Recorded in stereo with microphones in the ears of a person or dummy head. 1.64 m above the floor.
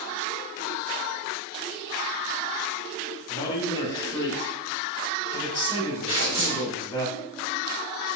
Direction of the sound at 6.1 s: 50° right (ahead or behind).